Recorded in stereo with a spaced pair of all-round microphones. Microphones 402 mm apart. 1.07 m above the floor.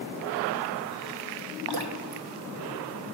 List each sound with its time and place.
1.7 s dripping: 70° right (ahead or behind), 0.7 m